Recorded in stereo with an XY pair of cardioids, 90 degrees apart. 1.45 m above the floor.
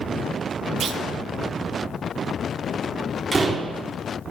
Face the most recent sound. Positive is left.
turn(degrees=-35)